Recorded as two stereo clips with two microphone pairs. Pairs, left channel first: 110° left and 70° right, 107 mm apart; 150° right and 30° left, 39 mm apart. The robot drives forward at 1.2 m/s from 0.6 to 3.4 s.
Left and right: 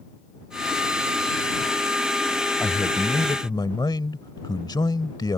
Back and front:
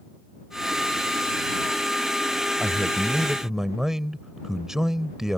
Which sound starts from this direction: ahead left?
A man speaking, at 2.6 s.